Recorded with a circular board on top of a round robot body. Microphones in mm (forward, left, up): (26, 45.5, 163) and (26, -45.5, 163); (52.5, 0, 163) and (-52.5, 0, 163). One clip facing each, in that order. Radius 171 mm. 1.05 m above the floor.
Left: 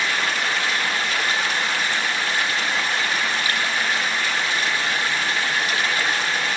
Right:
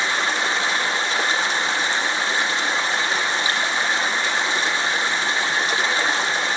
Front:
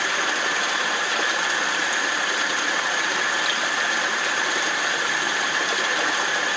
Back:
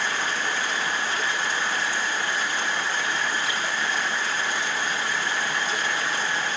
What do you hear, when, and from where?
0.0 s running water: 25° right, 0.9 m